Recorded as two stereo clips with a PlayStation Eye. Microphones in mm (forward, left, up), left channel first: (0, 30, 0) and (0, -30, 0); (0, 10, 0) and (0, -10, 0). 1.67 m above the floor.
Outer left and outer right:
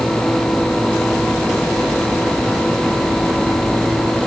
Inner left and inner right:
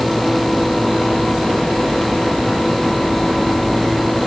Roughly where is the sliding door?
No sliding door in this recording.